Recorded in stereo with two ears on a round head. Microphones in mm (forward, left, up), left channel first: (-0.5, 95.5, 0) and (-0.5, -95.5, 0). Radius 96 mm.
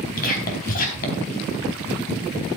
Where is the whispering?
40° left (ahead or behind), 4 m.